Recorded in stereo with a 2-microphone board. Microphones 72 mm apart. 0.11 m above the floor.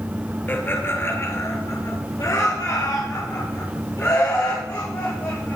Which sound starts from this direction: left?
Laughter, at 0.5 s.